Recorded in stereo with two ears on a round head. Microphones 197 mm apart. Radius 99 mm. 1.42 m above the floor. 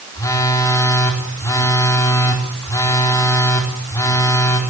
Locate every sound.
0.1 s a phone buzzing: 15° left (ahead or behind), 4 m